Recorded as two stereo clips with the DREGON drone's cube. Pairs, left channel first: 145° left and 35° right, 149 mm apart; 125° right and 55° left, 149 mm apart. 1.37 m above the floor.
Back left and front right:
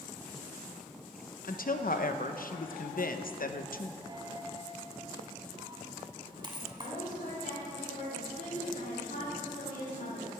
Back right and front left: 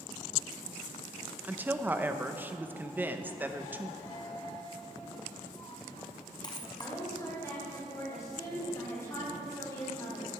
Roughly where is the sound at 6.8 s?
Behind.